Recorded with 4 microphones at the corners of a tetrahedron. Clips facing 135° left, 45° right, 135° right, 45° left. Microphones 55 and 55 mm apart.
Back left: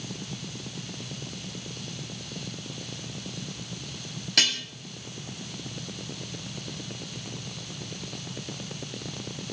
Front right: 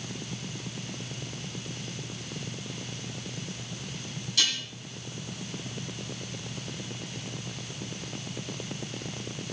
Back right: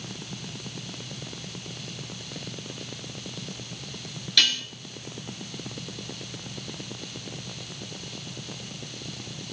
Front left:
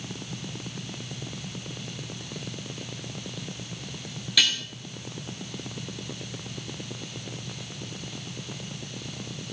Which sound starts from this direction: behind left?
Dishes clattering, at 4.4 s.